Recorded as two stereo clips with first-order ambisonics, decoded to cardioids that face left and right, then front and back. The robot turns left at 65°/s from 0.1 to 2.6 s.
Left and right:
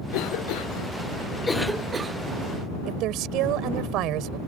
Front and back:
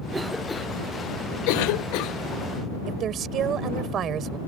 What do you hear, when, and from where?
0.1 s a cough: 105° left; by 2.2 s 30° right
2.9 s a woman speaking: 125° right